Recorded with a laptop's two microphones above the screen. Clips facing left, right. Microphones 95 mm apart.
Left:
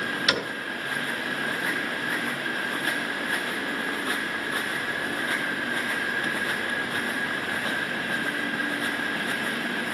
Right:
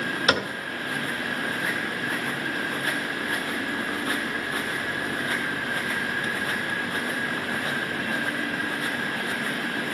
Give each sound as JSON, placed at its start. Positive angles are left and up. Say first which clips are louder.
{"t": 0.3, "sound": "a cupboard door", "louder": "right 5 dB", "side_deg": -40, "distance_m": 2.0}